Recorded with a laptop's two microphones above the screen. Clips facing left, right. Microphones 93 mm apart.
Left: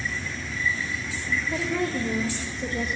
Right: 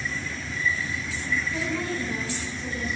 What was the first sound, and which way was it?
A woman speaking, 75° left (ahead or behind).